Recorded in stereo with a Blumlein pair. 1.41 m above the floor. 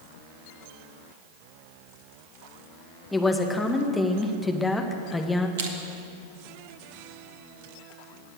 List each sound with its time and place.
3.1 s a woman speaking: 10° left, 1.7 m
5.6 s crushing: 55° right, 2.0 m